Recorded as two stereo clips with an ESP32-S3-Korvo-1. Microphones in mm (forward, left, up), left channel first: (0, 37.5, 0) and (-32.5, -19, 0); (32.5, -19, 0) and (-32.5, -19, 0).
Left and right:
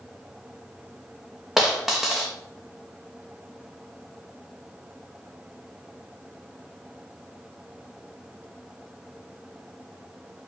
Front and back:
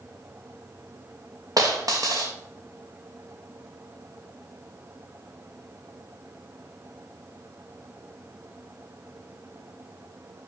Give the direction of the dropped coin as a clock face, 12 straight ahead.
7 o'clock.